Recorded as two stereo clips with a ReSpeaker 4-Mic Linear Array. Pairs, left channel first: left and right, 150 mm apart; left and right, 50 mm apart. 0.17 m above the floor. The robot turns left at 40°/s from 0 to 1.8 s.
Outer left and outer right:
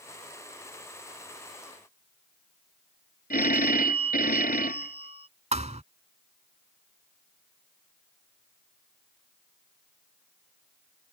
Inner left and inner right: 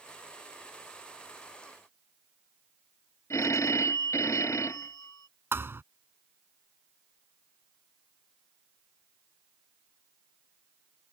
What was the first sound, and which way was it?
A phone ringing, 65° left (ahead or behind).